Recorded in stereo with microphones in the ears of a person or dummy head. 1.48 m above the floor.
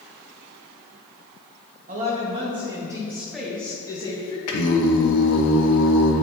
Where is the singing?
80° left, 1.0 m.